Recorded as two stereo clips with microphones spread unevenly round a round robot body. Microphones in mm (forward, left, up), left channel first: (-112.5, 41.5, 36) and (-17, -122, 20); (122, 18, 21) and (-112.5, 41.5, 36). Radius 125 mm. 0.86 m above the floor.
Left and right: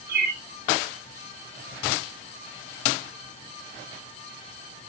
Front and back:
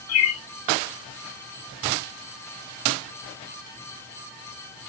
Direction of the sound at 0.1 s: 15° right.